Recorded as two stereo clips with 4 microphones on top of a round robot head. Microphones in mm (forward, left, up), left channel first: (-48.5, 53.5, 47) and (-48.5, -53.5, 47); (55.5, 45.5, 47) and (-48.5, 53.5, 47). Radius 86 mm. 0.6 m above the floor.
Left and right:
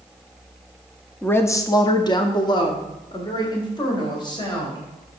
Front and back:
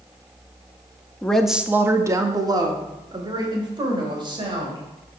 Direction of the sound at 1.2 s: 45° left.